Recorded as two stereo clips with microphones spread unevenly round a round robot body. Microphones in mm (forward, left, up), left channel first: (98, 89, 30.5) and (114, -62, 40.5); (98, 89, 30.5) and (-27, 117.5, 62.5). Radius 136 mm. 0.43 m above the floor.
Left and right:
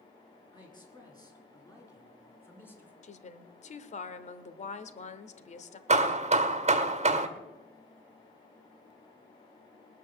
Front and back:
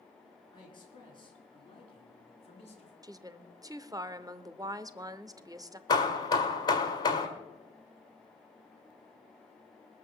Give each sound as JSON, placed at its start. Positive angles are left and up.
{"t": 0.5, "sound": "a man speaking", "azimuth_deg": 35, "distance_m": 7.0}
{"t": 3.0, "sound": "a woman speaking", "azimuth_deg": 100, "distance_m": 1.1}
{"t": 5.9, "sound": "hammering", "azimuth_deg": -50, "distance_m": 1.5}